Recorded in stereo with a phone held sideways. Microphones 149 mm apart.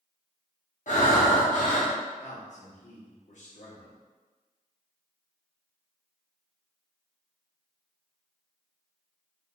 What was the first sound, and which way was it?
Breathing, 60° left (ahead or behind).